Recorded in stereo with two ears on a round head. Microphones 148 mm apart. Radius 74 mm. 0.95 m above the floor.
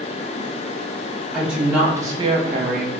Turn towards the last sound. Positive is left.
turn(degrees=-60)  # may be behind; listen again after turning